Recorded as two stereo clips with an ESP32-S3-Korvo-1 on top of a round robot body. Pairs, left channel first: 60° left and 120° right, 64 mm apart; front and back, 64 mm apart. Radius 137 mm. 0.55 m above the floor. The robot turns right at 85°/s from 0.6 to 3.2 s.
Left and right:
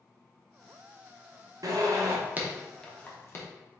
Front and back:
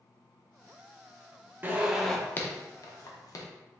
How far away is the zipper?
About 0.9 m.